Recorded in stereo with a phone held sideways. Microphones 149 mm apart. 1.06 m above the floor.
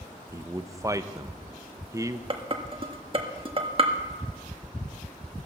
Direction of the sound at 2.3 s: 35° right (ahead or behind).